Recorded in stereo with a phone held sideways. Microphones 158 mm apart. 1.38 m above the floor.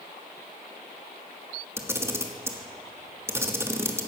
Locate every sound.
1.8 s a camera shutter: 15° right (ahead or behind), 1.5 m